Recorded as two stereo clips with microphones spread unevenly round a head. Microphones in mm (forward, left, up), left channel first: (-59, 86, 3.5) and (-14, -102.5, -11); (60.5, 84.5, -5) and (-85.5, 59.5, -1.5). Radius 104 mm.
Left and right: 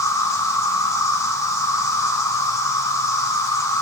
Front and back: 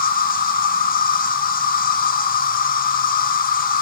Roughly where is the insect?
Ahead left.